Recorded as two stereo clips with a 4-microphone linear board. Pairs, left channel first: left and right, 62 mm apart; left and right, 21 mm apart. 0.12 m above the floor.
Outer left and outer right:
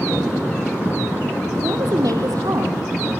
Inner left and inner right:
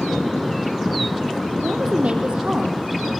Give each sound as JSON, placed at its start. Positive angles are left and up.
{"t": 1.6, "sound": "a woman speaking", "side_deg": -70, "distance_m": 4.0}